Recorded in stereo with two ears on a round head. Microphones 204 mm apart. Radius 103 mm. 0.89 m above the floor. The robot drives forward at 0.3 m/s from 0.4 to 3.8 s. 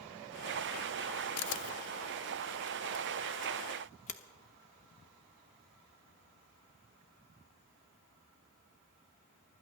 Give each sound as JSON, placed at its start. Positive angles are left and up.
{"t": 1.4, "sound": "a camera shutter", "side_deg": 75, "distance_m": 0.6}